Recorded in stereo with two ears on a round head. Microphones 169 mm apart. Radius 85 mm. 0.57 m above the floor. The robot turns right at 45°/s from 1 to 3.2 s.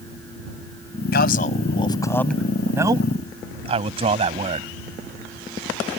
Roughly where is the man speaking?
Left.